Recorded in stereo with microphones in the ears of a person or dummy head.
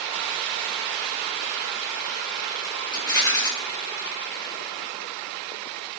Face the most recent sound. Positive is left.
turn(degrees=15)  # may be behind; listen again after turning